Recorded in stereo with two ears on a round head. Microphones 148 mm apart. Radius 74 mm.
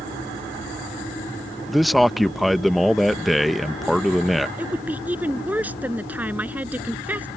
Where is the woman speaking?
10° right (ahead or behind).